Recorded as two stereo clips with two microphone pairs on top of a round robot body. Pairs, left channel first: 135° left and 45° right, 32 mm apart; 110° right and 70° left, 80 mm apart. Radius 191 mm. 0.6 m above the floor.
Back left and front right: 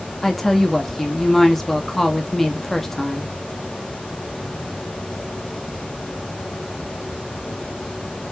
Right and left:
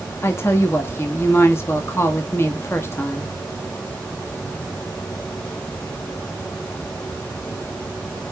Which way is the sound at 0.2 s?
150° right.